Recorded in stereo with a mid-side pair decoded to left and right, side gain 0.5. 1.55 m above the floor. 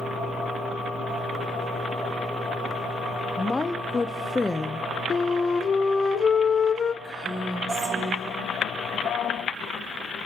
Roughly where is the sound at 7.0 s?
Ahead right.